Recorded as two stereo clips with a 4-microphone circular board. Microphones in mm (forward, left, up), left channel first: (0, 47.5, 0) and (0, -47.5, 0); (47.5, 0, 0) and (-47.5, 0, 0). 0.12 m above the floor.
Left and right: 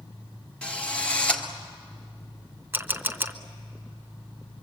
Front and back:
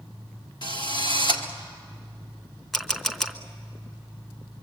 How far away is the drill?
About 1.8 m.